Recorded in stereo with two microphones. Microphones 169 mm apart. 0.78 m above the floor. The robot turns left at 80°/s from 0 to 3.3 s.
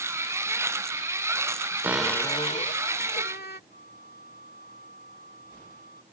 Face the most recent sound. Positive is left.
turn(degrees=65)  # may be behind; listen again after turning